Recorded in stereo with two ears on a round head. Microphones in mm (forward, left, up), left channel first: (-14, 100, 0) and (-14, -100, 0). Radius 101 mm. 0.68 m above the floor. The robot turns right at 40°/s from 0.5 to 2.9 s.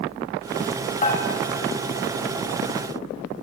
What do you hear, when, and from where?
1.0 s dishes clattering: 40° left (ahead or behind), 2.5 m; by 1.2 s 35° left (ahead or behind), 2.5 m